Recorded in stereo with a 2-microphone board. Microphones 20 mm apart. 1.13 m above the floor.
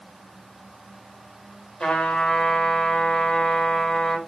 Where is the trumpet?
50° left (ahead or behind), 0.9 m.